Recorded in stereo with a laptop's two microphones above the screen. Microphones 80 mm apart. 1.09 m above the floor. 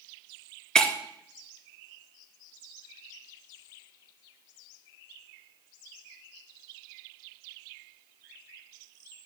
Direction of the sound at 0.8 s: 10° left (ahead or behind).